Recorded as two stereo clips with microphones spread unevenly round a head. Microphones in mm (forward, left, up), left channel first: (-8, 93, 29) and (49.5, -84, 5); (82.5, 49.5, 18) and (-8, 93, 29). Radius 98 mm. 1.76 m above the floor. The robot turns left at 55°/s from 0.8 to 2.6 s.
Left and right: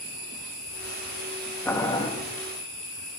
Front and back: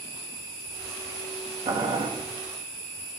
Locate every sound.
1.6 s boiling: 175° right, 1.2 m; by 2.1 s 165° left, 1.2 m